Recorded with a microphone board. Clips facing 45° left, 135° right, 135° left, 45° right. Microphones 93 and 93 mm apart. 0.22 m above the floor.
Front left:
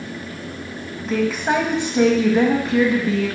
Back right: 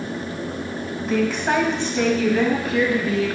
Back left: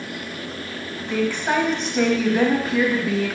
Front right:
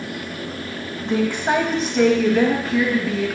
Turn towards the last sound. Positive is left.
turn(degrees=85)